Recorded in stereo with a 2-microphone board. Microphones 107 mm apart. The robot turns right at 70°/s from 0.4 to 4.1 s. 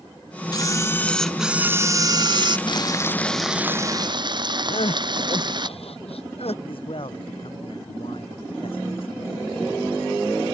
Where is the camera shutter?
125° left; by 2.6 s 90° right.